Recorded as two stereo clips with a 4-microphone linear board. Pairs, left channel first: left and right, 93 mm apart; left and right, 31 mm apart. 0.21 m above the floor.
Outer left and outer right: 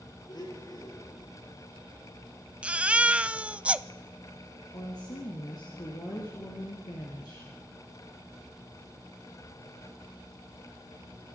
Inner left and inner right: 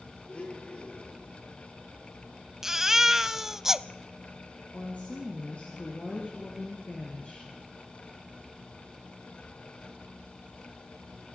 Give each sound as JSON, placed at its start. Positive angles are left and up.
{"t": 0.3, "sound": "a blender", "side_deg": 45, "distance_m": 5.0}
{"t": 2.6, "sound": "a baby crying", "side_deg": -15, "distance_m": 0.5}
{"t": 4.7, "sound": "a woman speaking", "side_deg": 45, "distance_m": 3.5}